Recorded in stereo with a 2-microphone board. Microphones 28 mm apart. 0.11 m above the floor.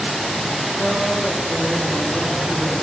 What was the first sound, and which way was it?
A woman speaking, 30° left (ahead or behind).